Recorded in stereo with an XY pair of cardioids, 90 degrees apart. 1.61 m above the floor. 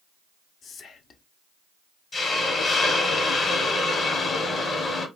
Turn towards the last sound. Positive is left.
turn(degrees=55)